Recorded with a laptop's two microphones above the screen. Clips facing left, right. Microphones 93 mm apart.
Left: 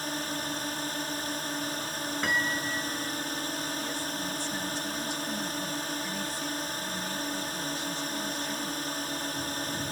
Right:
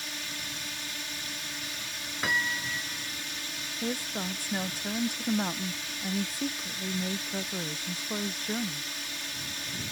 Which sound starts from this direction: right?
A woman speaking, at 3.8 s.